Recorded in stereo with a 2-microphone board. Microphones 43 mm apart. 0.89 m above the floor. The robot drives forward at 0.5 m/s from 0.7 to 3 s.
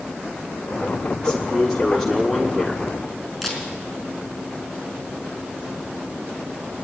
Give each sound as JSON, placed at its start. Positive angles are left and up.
{"t": 1.2, "sound": "a man speaking", "side_deg": 15, "distance_m": 1.4}
{"t": 3.4, "sound": "a camera shutter", "side_deg": 0, "distance_m": 4.0}